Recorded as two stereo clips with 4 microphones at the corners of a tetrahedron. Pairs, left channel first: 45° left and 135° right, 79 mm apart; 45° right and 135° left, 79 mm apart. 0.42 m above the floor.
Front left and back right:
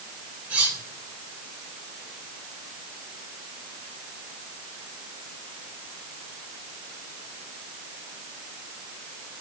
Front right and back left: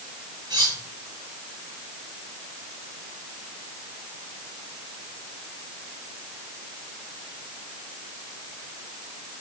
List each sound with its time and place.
0.5 s cutlery clinking: 155° left, 2.5 m